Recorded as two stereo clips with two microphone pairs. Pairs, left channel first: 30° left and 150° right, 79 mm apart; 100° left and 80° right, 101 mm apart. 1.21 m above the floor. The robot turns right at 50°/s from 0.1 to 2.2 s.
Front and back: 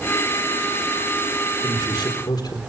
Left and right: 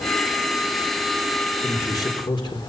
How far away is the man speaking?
About 3.5 m.